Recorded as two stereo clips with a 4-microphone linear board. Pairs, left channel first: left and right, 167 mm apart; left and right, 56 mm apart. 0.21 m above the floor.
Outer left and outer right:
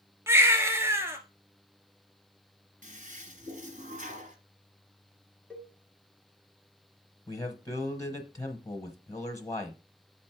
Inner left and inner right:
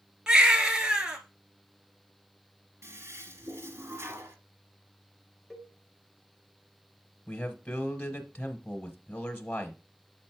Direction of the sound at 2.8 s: 55° right (ahead or behind).